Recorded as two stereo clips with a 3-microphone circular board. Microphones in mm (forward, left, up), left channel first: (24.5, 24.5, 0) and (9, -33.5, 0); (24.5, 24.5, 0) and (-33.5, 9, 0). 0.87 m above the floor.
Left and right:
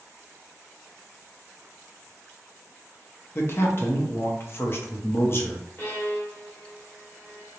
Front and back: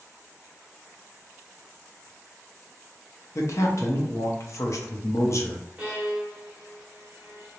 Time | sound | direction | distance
3.4 | a man speaking | 35° left | 0.6 m
5.8 | a violin | 130° left | 1.0 m